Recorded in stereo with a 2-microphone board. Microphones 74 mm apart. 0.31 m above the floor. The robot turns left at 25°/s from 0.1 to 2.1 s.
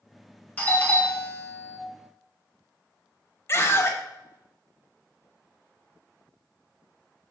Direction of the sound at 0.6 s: 135° left.